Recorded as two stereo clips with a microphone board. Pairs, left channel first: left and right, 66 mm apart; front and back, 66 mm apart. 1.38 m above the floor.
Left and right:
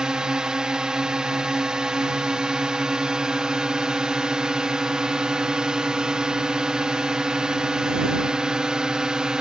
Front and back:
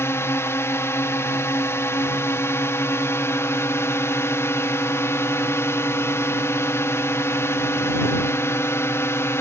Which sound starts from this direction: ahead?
A drone, at 0.0 s.